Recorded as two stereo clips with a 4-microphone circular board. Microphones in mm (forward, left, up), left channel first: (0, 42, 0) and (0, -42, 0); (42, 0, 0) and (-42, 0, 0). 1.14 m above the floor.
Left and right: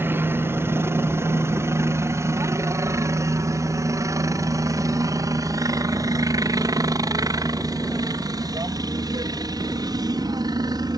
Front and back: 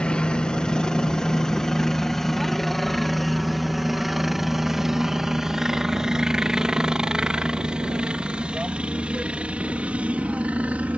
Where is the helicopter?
65° right; by 11.0 s 110° right.